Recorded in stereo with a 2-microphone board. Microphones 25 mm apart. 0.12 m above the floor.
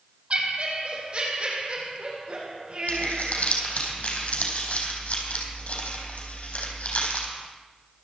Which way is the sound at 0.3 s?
40° right (ahead or behind).